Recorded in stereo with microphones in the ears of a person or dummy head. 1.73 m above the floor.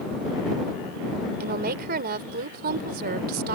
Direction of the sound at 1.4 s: 50° right (ahead or behind).